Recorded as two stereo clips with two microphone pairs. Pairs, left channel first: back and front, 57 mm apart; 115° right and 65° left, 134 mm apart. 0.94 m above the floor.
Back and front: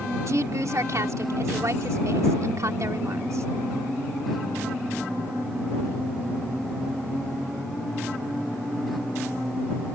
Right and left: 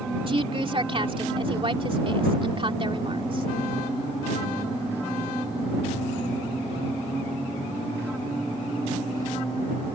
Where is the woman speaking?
20° left.